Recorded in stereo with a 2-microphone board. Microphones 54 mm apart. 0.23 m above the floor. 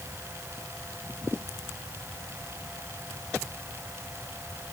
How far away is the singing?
No singing in this recording.